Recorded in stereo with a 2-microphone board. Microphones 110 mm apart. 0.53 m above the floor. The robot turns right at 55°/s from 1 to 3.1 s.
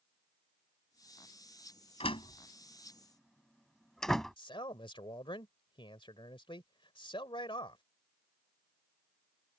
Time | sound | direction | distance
2.0 | a door slam | 65° left (ahead or behind) | ?
4.4 | a man speaking | 50° left (ahead or behind) | ?